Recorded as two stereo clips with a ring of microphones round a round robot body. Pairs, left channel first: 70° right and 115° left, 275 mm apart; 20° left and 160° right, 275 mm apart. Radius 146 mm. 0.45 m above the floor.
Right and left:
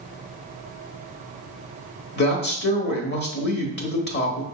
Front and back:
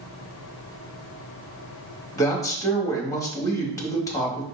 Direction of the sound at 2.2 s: 50° right.